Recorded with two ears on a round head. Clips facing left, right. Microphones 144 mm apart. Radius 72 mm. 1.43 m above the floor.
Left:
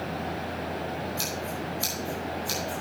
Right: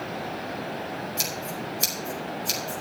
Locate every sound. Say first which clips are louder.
1.2 s scissors: even; 25° right (ahead or behind), 5 m